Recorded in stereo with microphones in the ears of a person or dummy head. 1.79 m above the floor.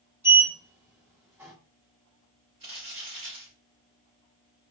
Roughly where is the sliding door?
Centre.